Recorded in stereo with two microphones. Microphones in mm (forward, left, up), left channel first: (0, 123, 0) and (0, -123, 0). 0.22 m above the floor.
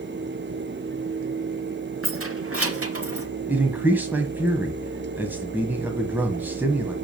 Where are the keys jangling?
65° right (ahead or behind), 2 m; by 3.3 s 70° right (ahead or behind), 2.5 m.